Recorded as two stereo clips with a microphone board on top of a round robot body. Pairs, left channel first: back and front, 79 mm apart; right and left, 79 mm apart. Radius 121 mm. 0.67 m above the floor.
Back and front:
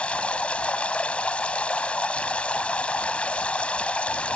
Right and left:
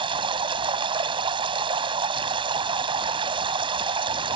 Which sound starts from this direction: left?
Running water, at 0.0 s.